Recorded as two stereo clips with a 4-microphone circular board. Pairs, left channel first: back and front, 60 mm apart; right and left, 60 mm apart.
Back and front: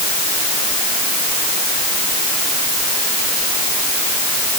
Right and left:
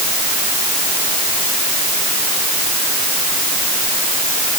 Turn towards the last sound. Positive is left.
No sound to turn to.